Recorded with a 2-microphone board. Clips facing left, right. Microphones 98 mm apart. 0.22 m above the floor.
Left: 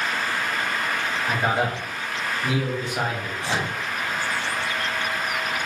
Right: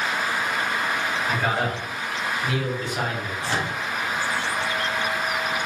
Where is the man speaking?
20° left (ahead or behind), 1.3 m.